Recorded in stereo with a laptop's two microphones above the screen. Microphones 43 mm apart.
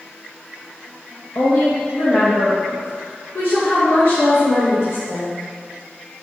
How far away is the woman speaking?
About 1.1 m.